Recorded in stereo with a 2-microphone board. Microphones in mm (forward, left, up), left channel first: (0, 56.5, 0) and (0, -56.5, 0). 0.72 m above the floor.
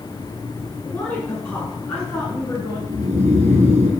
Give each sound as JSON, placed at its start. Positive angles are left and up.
{"t": 0.8, "sound": "a woman speaking", "side_deg": 10, "distance_m": 7.0}
{"t": 2.9, "sound": "snoring", "side_deg": -85, "distance_m": 4.0}